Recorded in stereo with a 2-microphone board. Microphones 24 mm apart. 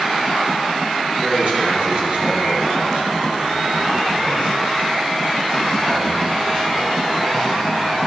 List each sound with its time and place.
1.2 s a man speaking: 35° right (ahead or behind), 3.5 m; by 8.0 s 60° right (ahead or behind), 6 m